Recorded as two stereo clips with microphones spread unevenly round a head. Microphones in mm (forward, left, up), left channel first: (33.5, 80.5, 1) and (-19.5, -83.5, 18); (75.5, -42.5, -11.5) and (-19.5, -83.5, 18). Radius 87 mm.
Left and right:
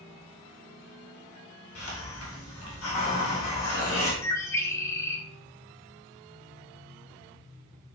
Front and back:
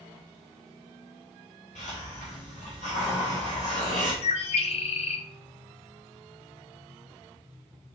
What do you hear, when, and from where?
1.8 s a hiss: 75° left, 2.5 m
4.2 s a bird: 5° right, 1.0 m